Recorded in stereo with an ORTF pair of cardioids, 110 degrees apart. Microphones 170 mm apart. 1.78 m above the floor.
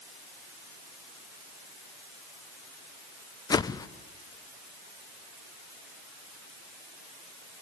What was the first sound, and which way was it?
A whoosh, 25° left.